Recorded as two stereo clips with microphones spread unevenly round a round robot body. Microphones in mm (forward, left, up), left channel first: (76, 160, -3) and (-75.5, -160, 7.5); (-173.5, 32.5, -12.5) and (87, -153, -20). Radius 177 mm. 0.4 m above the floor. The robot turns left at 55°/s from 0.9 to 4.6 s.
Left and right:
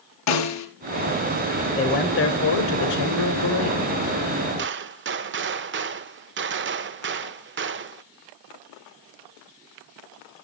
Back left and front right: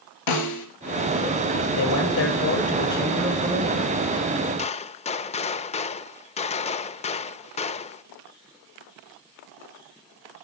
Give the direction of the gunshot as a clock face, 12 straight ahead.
5 o'clock.